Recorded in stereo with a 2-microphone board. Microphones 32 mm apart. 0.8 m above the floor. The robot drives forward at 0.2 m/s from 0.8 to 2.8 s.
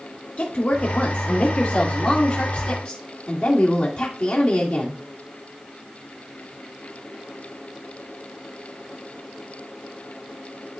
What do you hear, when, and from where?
0.4 s a woman speaking: 55° left (ahead or behind), 1.6 m; by 5.0 s 45° left (ahead or behind), 1.9 m